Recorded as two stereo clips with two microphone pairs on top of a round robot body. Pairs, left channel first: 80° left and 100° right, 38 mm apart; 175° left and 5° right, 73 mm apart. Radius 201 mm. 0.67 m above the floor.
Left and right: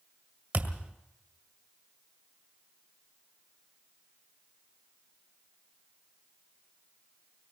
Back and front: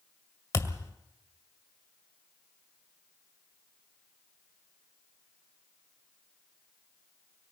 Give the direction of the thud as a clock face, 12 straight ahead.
4 o'clock.